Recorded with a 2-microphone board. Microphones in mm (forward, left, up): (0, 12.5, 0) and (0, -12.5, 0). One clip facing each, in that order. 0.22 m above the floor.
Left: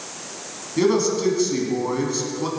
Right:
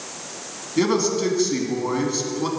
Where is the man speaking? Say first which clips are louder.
Left 1 dB; 10° right (ahead or behind), 2 m.